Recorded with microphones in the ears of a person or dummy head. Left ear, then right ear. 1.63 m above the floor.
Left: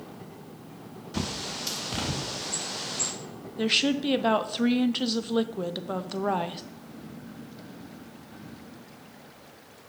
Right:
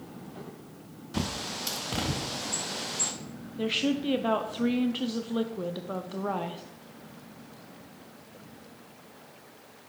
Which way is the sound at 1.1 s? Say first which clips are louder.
Left 1 dB; 5° right (ahead or behind).